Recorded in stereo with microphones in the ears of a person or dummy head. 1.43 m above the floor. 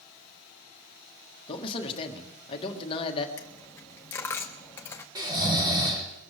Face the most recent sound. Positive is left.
turn(degrees=-15)  # may be behind; listen again after turning